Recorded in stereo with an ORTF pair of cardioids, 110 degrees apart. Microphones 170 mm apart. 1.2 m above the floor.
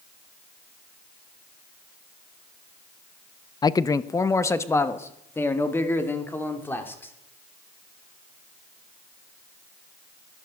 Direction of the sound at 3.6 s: 25° left.